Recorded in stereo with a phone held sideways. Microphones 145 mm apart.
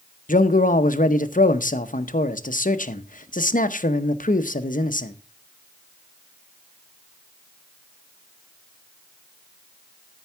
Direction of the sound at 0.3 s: 65° left (ahead or behind).